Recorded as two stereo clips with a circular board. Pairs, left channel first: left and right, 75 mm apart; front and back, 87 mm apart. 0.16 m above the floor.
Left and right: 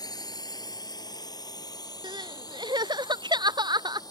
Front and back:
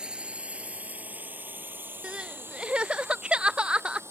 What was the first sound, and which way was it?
A drone, 100° left.